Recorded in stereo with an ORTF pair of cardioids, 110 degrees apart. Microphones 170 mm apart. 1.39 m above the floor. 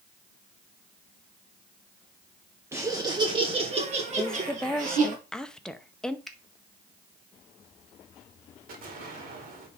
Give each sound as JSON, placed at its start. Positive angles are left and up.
{"t": 2.7, "sound": "laughter", "azimuth_deg": -15, "distance_m": 0.9}
{"t": 4.2, "sound": "a woman speaking", "azimuth_deg": 5, "distance_m": 0.8}
{"t": 6.3, "sound": "a finger snap", "azimuth_deg": 0, "distance_m": 1.1}
{"t": 8.7, "sound": "an explosion", "azimuth_deg": -60, "distance_m": 2.5}